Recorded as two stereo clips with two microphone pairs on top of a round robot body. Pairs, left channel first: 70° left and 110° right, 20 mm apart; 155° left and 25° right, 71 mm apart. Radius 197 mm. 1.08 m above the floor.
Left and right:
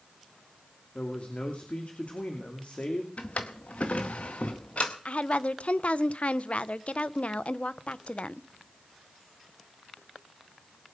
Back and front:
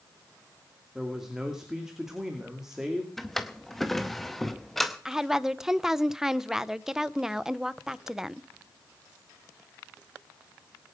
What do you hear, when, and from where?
0.9 s a man speaking: 60° left, 2.5 m
3.2 s a drawer: 65° left, 0.7 m
5.0 s a woman speaking: 60° left, 0.8 m